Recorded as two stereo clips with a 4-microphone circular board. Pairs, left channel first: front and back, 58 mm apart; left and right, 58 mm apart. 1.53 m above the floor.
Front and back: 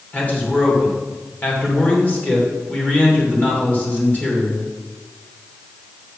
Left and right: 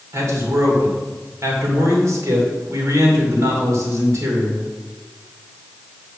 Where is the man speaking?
60° right, 2.5 m.